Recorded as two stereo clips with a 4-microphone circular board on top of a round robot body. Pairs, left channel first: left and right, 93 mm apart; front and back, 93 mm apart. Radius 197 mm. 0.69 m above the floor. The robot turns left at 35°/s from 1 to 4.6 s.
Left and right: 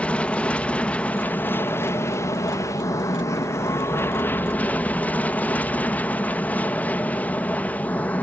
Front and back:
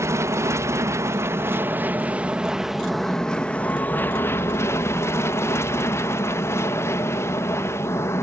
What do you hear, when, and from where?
0.0 s an aircraft: 155° left; by 8.2 s 30° left